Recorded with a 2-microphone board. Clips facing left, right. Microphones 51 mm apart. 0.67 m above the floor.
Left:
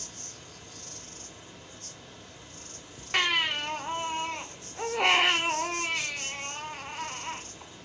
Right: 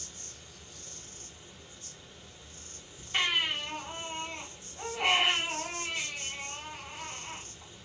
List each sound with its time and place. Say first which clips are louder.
0.0 s an insect: left 4 dB; 60° left (ahead or behind), 0.7 m
3.1 s a baby crying: left 3 dB; 75° left (ahead or behind), 0.7 m